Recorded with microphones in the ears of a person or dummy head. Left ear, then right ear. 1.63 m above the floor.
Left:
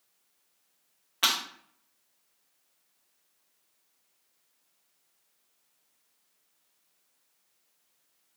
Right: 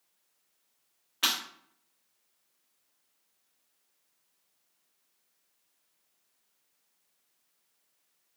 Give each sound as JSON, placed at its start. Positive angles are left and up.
{"t": 1.2, "sound": "breaking glass", "side_deg": 15, "distance_m": 2.0}